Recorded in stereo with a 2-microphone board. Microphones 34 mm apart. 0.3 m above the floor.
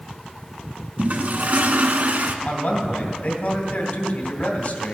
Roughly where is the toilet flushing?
Right.